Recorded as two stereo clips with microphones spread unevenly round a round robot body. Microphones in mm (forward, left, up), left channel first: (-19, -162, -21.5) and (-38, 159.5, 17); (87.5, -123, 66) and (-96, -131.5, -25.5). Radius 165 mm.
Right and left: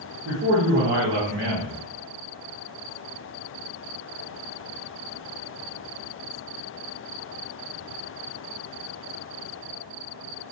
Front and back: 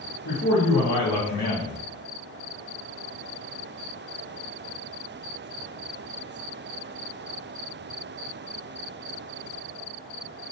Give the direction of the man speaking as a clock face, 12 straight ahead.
11 o'clock.